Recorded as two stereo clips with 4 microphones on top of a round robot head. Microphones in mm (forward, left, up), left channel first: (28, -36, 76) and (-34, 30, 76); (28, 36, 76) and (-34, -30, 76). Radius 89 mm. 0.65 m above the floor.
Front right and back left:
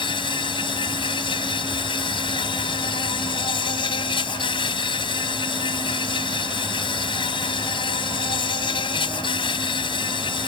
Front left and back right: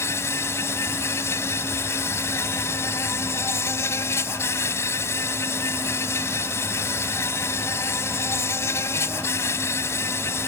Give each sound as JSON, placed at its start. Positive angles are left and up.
{"t": 0.0, "sound": "an insect", "azimuth_deg": -15}